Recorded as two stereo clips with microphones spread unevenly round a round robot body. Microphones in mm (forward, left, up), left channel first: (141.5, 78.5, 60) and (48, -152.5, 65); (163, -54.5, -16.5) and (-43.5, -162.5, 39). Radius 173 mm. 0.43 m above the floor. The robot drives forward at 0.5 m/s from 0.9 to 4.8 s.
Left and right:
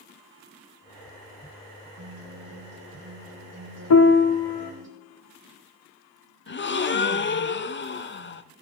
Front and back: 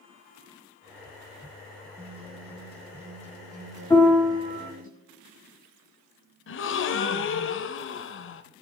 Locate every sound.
2.0 s a guitar: 85° right, 5.5 m; by 4.9 s 100° right, 5.5 m
3.9 s a piano: 110° left, 0.6 m; by 4.7 s 140° left, 0.8 m
6.5 s a gasp: 25° left, 1.0 m